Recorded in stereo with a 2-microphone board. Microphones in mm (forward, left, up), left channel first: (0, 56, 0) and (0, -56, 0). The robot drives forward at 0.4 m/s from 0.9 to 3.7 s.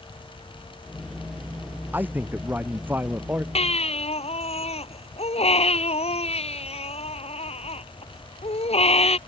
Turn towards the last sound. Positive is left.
turn(degrees=65)  # may be behind; listen again after turning